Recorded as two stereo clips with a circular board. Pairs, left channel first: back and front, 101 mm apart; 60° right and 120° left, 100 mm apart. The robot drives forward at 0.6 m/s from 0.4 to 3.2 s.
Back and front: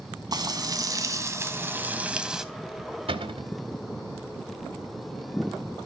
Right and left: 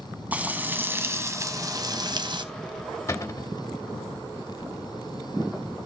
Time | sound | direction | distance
0.3 | frying | 45° left | 2.0 m
3.1 | a cupboard door | straight ahead | 2.5 m